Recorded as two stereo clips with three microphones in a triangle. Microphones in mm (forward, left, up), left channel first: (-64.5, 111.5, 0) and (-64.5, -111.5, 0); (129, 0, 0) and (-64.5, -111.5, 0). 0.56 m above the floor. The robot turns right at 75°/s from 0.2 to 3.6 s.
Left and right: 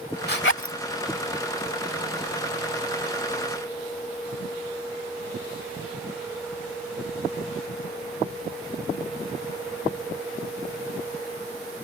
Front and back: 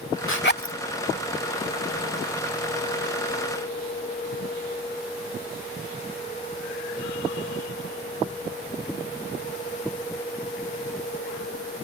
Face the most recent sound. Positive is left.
turn(degrees=-60)